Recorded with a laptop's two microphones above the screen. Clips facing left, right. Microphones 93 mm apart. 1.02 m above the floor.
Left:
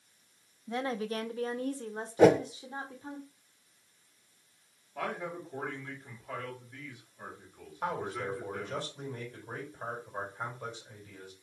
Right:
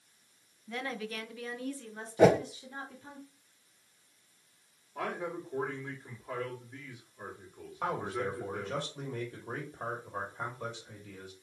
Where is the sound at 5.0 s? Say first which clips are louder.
Even; 25° right (ahead or behind), 2.5 m.